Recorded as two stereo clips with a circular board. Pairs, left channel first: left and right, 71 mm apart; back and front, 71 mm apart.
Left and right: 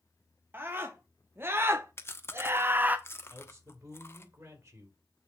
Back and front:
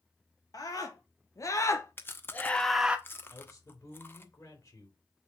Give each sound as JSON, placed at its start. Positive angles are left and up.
{"t": 0.5, "sound": "a scream", "azimuth_deg": -145, "distance_m": 2.0}
{"t": 2.0, "sound": "chewing", "azimuth_deg": 130, "distance_m": 1.0}
{"t": 3.3, "sound": "a man speaking", "azimuth_deg": -130, "distance_m": 3.5}